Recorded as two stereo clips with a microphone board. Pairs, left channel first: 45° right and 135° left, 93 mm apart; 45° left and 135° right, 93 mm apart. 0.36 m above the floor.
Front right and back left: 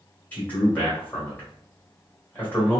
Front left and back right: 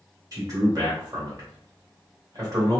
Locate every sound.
0.3 s a man speaking: 110° right, 1.6 m